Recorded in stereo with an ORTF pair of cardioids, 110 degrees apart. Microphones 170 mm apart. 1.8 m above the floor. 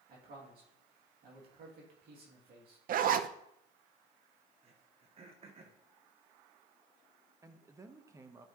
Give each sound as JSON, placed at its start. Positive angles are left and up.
{"t": 0.1, "sound": "a man speaking", "azimuth_deg": -65, "distance_m": 2.5}
{"t": 2.9, "sound": "a zipper", "azimuth_deg": -55, "distance_m": 0.6}
{"t": 4.6, "sound": "throat clearing", "azimuth_deg": -40, "distance_m": 1.4}
{"t": 7.4, "sound": "a man speaking", "azimuth_deg": -20, "distance_m": 1.1}